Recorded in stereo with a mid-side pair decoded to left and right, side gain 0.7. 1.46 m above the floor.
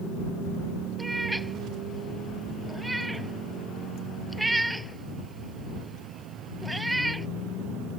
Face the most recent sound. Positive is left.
turn(degrees=-10)